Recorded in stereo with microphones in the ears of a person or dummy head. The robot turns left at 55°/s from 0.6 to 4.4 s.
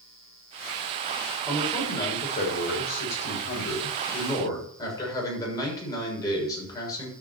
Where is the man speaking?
175° right, 6.5 m; by 7.1 s 25° left, 6.5 m.